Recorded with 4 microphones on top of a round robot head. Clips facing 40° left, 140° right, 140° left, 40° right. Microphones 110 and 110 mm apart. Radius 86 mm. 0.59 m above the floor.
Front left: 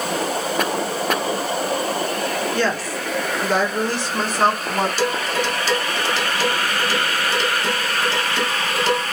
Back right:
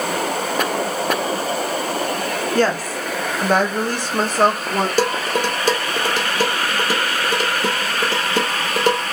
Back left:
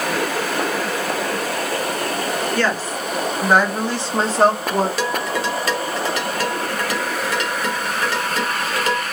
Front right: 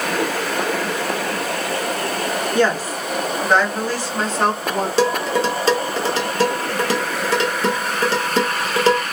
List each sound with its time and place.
2.5 s a woman speaking: 105° right, 1.5 m; by 4.9 s straight behind, 1.8 m
5.0 s dishes clattering: 100° right, 1.1 m